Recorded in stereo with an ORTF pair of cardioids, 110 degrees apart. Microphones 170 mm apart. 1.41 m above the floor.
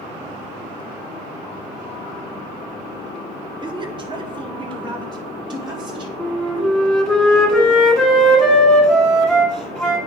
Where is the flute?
Straight ahead, 1.5 m.